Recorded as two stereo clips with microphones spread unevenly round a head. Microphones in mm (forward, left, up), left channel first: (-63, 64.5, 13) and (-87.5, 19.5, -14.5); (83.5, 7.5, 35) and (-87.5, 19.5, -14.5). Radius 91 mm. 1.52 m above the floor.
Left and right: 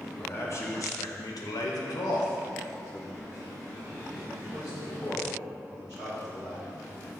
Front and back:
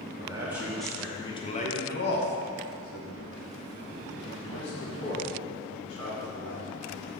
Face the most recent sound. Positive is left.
turn(degrees=-20)